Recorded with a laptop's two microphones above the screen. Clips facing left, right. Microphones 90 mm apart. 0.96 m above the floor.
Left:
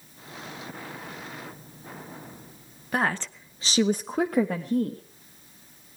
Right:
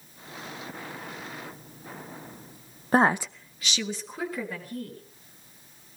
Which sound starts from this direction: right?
A woman speaking, at 2.9 s.